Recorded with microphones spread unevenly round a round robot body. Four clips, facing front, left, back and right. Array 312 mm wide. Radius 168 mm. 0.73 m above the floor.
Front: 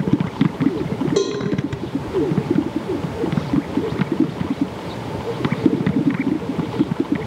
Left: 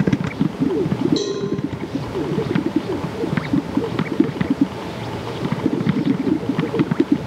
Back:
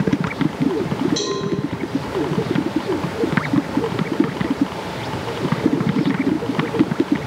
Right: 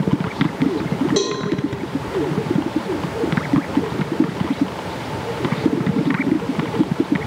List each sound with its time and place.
1.2 s a cowbell: 65° right, 0.5 m